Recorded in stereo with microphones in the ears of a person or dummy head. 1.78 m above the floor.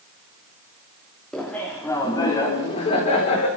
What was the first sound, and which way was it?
Laughter, centre (ahead or behind).